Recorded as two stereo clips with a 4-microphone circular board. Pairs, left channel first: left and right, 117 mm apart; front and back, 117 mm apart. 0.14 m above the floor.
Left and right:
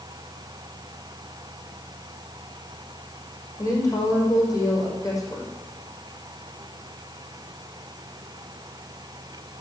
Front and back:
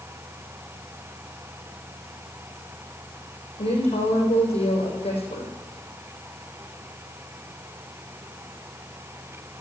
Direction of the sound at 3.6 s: 30° left.